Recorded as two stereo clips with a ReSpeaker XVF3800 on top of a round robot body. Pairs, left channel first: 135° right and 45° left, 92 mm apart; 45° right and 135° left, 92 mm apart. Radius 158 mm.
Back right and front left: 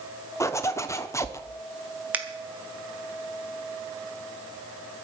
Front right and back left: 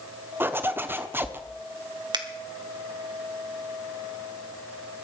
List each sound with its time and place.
0.4 s a zipper: 170° right, 1.1 m
2.1 s a finger snap: 115° left, 1.7 m